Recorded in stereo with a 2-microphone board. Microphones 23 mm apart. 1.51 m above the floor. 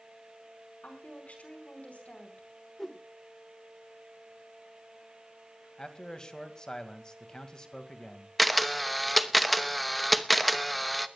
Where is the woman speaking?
75° left (ahead or behind), 5.5 m.